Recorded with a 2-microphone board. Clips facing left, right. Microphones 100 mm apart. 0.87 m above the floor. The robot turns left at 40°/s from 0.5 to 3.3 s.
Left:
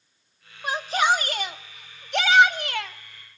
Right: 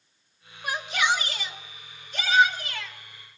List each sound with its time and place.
0.6 s a shout: 150° left, 1.3 m; by 3.0 s 60° left, 1.3 m